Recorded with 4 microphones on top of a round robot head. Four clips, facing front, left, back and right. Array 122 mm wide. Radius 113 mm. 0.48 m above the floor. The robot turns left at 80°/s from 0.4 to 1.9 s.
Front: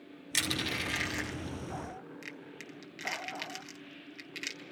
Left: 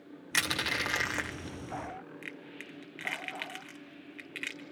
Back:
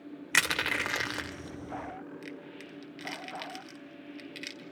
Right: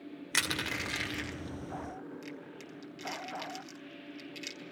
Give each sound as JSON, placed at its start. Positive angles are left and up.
{"t": 0.3, "sound": "crushing", "azimuth_deg": -175, "distance_m": 1.8}